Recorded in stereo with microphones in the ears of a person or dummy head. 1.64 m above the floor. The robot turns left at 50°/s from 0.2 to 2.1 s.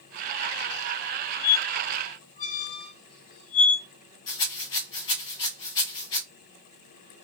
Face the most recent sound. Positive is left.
turn(degrees=25)  # may be behind; listen again after turning